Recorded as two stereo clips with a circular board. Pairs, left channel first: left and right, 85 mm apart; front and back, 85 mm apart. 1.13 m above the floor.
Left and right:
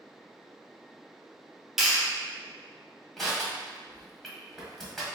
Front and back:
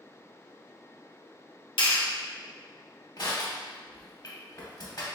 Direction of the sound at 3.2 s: Straight ahead.